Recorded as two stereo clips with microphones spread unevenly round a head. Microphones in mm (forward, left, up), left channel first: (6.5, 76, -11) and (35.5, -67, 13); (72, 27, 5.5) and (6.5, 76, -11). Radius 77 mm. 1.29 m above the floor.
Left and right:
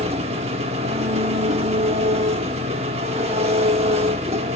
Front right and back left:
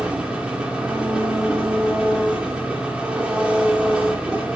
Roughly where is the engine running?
Behind right.